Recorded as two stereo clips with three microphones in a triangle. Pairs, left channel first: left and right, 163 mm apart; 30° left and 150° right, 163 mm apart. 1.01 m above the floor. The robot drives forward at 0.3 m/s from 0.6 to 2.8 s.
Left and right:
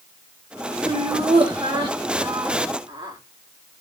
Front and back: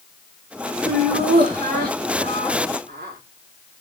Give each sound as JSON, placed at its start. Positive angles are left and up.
{"t": 0.8, "sound": "laughter", "azimuth_deg": -140, "distance_m": 2.5}